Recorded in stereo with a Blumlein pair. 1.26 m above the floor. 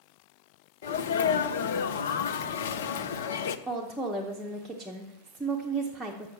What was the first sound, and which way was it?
A sneeze, 60° left.